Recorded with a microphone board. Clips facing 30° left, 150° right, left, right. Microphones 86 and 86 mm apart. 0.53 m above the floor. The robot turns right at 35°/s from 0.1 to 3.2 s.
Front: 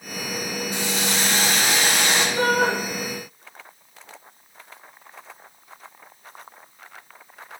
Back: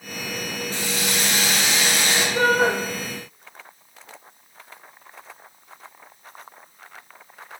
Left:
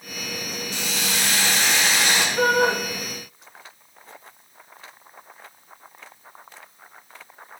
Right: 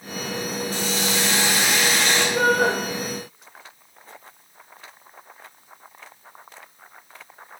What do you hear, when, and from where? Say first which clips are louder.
0.7 s a hiss: front 1 dB, right 2 dB; 45° right, 2 m; by 2.2 s 5° left, 2 m
2.4 s a shout: back 3 dB, even; 100° right, 3 m; by 2.7 s 85° right, 3 m